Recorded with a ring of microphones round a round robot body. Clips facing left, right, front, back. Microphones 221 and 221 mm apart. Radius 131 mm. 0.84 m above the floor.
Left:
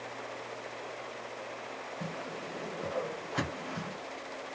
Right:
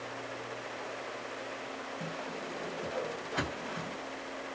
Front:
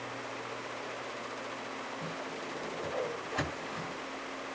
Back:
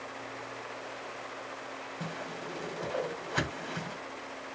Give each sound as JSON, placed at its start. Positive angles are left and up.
{"t": 2.0, "sound": "a whoosh", "azimuth_deg": 175, "distance_m": 1.7}